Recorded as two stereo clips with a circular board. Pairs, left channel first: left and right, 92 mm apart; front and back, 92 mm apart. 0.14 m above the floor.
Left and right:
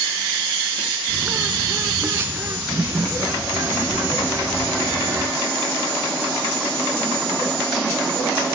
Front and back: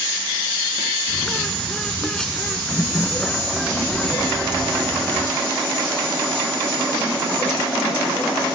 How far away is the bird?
About 1.1 m.